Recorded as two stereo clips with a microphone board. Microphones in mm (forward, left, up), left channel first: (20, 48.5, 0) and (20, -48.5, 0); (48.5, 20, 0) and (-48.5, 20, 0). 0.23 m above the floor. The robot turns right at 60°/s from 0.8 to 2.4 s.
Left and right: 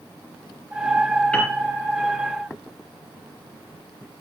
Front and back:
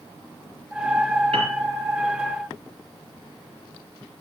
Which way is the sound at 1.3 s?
165° left.